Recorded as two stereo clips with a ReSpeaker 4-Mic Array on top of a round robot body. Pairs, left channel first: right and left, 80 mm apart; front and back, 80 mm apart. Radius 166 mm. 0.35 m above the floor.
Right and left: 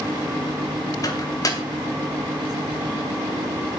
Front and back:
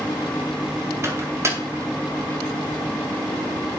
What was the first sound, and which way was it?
A microwave, 130° right.